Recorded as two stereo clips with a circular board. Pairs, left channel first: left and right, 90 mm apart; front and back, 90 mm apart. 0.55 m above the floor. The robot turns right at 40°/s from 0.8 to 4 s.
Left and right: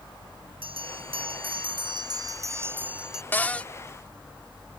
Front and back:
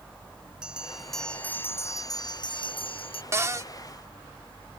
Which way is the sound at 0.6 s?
100° right.